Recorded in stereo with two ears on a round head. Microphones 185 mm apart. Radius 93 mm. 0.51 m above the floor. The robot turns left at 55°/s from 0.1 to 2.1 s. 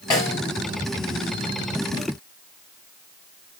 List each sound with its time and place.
0.1 s a snare drum: 20° left (ahead or behind), 4.5 m; by 0.4 s 5° left (ahead or behind), 4.5 m